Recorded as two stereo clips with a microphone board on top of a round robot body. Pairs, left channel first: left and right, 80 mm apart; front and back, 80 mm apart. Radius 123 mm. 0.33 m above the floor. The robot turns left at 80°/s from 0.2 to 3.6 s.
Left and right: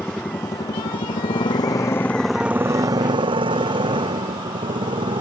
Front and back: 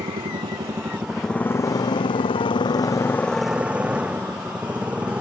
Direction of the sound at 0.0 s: 170° left.